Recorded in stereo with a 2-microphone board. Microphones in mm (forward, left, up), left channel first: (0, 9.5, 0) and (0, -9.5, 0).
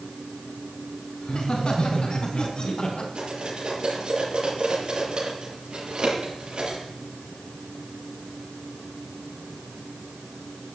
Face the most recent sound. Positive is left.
turn(degrees=-50)  # may be behind; listen again after turning